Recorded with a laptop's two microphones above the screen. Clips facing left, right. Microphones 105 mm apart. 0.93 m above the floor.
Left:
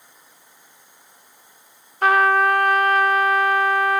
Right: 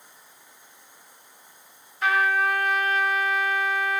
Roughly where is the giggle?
I don't hear a giggle.